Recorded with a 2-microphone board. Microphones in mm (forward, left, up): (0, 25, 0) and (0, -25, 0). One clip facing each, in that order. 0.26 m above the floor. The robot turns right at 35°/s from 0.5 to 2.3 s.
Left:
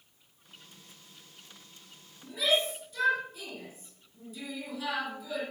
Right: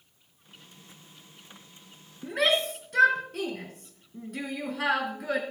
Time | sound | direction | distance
2.2 | a shout | 60° right (ahead or behind) | 3.5 m